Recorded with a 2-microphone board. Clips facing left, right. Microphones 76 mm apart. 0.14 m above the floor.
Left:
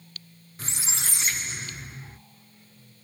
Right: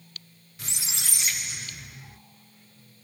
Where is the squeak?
35° left (ahead or behind), 0.6 m.